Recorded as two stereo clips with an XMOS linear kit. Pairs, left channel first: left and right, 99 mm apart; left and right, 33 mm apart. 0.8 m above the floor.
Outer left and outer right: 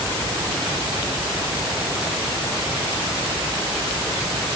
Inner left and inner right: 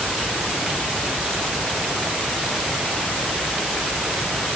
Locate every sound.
Only background noise.